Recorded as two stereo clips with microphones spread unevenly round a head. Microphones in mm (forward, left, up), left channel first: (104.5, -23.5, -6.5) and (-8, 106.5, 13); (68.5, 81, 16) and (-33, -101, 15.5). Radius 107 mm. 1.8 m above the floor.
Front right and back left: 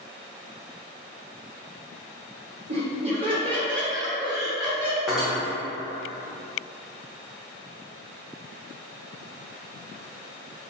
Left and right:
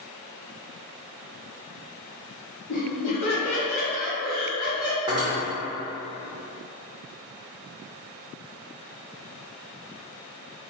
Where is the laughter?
75° left, 1.2 m; by 5.0 s 60° left, 2.5 m.